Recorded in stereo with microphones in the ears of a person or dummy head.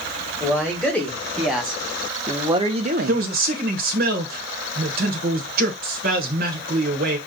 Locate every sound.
0.4 s a man speaking: 10° left (ahead or behind), 1.6 m; by 3.2 s 45° right (ahead or behind), 0.6 m
3.1 s a man speaking: 50° right (ahead or behind), 1.0 m